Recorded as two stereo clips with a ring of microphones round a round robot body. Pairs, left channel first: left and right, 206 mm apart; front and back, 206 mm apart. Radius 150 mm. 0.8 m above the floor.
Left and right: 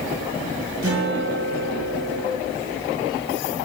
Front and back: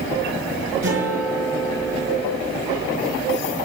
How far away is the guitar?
About 6 m.